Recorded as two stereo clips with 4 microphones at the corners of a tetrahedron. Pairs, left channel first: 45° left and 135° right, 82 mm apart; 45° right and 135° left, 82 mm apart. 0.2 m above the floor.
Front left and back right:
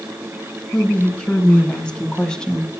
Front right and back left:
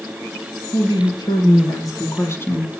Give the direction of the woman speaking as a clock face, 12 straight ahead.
1 o'clock.